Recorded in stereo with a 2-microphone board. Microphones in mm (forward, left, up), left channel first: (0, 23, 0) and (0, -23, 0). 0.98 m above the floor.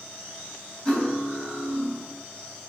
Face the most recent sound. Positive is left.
turn(degrees=25)  # may be behind; listen again after turning